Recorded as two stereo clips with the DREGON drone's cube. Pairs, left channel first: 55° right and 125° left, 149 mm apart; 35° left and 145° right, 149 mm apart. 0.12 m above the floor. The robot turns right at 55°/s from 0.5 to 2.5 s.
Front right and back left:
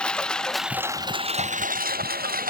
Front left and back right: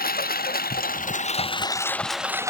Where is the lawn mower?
30° left; by 2.5 s 145° left.